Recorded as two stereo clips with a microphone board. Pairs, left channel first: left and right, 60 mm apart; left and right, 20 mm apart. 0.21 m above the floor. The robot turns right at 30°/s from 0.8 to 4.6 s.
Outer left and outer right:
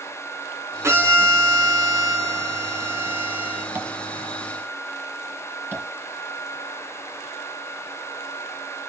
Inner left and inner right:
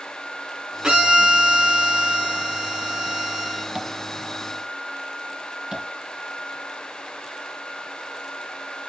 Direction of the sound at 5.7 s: 35° right (ahead or behind).